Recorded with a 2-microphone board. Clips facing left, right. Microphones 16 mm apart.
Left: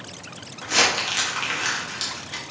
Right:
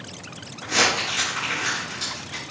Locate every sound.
0.6 s crumpling: 35° left (ahead or behind), 1.4 m